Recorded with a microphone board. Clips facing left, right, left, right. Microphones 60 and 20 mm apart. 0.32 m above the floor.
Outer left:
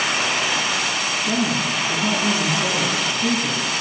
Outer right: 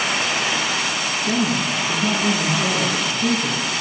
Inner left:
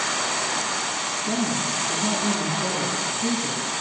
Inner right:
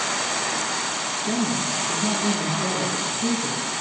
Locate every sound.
1.2 s a woman speaking: 20° right (ahead or behind), 2.5 m